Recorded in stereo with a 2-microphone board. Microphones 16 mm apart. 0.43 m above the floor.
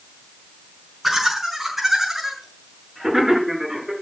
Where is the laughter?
5° right (ahead or behind), 5 m; by 3.9 s 20° right (ahead or behind), 5.5 m.